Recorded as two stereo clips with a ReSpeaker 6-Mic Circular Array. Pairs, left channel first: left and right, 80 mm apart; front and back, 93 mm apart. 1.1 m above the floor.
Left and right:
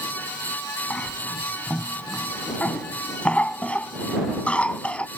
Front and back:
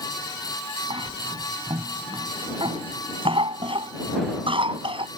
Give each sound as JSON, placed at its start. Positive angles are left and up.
{"t": 0.9, "sound": "a cough", "azimuth_deg": 165}